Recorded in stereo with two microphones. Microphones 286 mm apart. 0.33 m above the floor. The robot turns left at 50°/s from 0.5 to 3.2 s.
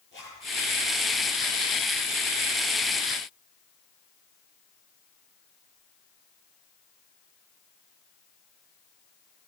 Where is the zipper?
40° left (ahead or behind), 8 m.